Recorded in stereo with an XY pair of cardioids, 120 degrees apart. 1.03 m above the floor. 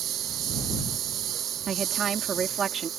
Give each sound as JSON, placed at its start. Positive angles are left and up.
{"t": 0.0, "sound": "a lawn mower", "azimuth_deg": -65}
{"t": 1.7, "sound": "a woman speaking", "azimuth_deg": -50}